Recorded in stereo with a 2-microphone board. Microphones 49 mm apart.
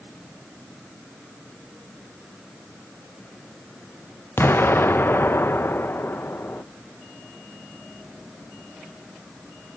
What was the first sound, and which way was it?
An explosion, 50° left (ahead or behind).